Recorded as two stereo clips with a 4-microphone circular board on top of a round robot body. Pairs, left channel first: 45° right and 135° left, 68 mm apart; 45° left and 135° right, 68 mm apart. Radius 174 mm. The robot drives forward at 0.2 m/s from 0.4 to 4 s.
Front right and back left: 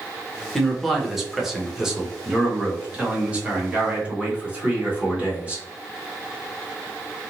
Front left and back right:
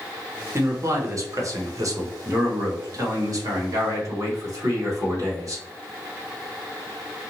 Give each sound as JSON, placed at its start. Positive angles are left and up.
{"t": 0.6, "sound": "a man speaking", "azimuth_deg": -130, "distance_m": 0.9}